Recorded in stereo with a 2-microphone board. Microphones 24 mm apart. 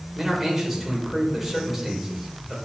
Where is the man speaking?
10° right (ahead or behind), 3 m.